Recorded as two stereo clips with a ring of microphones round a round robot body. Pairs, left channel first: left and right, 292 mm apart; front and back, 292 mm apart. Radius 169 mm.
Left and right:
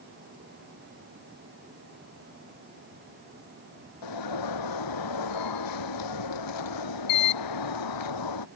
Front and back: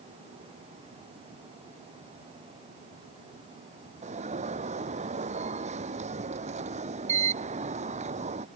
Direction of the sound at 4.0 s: 110° left.